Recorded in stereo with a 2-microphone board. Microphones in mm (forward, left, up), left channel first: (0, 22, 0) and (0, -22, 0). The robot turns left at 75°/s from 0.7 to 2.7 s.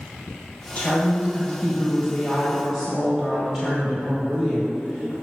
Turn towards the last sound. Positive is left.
turn(degrees=-30)